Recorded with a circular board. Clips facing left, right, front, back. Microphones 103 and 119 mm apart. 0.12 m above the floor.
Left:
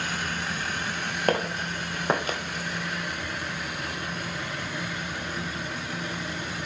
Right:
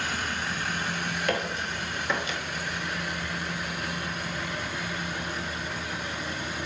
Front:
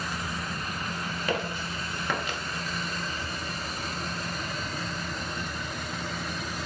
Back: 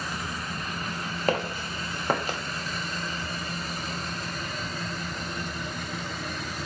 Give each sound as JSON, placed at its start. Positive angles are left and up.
{"t": 1.3, "sound": "footsteps", "azimuth_deg": 135, "distance_m": 1.3}